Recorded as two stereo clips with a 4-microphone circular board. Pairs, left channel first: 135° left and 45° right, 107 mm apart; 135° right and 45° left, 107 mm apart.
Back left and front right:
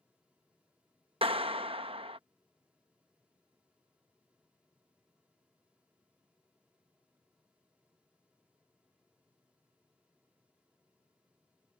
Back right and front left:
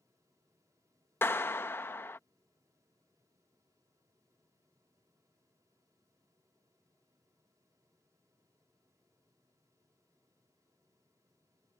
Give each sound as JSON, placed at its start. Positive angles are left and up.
{"t": 1.2, "sound": "a clap", "azimuth_deg": -70}